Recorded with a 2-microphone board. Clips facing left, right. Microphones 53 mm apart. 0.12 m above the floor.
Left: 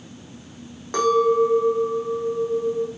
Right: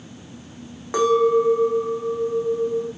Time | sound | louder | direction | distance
0.9 | a clink | right 1 dB | 10° right (ahead or behind) | 4 m